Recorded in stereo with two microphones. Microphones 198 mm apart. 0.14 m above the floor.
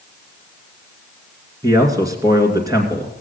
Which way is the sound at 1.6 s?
15° right (ahead or behind).